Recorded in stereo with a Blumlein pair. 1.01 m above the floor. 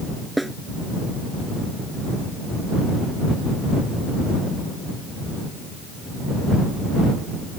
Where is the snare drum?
5° right.